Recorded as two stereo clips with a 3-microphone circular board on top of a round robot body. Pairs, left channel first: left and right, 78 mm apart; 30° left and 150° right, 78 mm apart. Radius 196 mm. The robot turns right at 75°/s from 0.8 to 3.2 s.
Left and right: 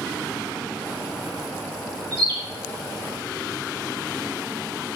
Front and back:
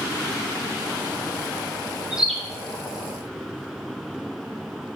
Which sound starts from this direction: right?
A bird, at 2.1 s.